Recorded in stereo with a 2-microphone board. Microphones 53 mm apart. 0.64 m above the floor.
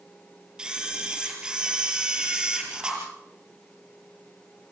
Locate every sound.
0.6 s a camera shutter: 15° right (ahead or behind), 5.5 m